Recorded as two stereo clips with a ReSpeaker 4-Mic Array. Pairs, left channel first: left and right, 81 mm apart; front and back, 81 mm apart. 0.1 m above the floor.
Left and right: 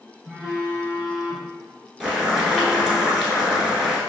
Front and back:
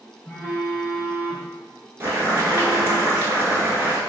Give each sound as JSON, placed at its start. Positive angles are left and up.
{"t": 0.2, "sound": "a phone buzzing", "azimuth_deg": -35, "distance_m": 1.5}
{"t": 2.0, "sound": "boiling", "azimuth_deg": -170, "distance_m": 0.9}